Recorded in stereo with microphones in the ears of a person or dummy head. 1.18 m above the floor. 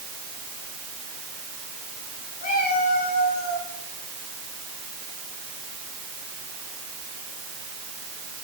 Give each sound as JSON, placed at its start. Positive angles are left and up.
{"t": 2.4, "sound": "a cat meowing", "side_deg": 40, "distance_m": 9.0}